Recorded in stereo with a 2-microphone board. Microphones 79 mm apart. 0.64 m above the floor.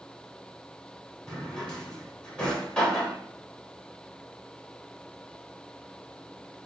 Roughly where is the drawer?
Centre.